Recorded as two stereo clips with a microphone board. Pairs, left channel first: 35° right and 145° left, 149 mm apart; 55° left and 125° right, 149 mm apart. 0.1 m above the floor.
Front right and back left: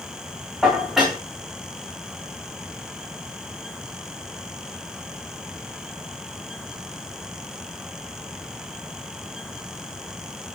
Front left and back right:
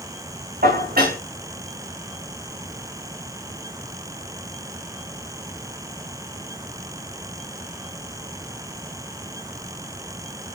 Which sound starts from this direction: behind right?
Dishes clattering, at 0.6 s.